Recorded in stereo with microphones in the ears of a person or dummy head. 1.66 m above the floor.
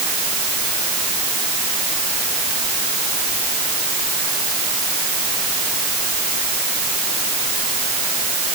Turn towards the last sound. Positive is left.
No sound to turn to.